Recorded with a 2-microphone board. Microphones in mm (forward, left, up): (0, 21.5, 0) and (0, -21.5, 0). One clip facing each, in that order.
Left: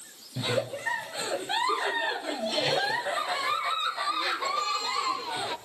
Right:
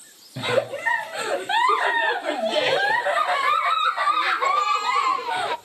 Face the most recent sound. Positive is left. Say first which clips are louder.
# right 7 dB
turn(degrees=-35)  # may be behind; listen again after turning